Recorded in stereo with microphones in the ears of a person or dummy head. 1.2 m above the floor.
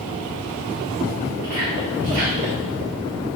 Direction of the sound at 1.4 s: 50° right (ahead or behind).